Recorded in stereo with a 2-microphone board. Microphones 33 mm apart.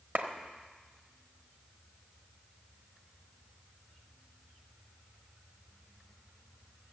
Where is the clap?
50° right (ahead or behind), 1.2 m.